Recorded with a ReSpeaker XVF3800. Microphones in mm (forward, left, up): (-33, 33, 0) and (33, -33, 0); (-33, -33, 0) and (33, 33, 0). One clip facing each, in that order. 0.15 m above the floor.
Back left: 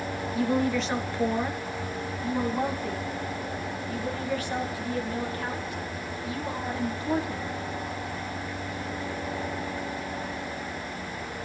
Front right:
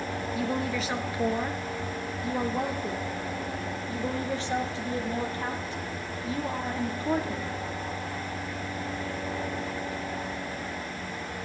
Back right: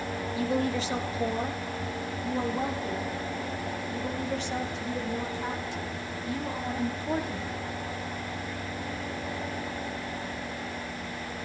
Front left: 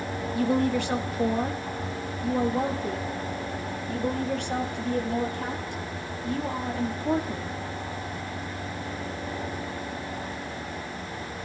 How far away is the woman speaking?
About 2.5 m.